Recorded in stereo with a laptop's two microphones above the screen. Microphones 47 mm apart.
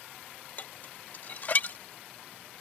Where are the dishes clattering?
40° left (ahead or behind).